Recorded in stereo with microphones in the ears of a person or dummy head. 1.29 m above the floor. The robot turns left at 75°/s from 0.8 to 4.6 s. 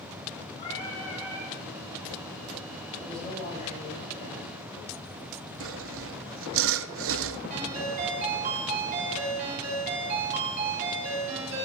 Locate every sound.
0.6 s singing: 25° left, 5.5 m; by 1.6 s 30° right, 5.5 m
3.0 s a man speaking: 170° right, 8 m; by 4.5 s 75° left, 8 m
5.6 s sawing: 65° right (ahead or behind), 0.8 m
7.5 s a ringtone: 40° right (ahead or behind), 8.5 m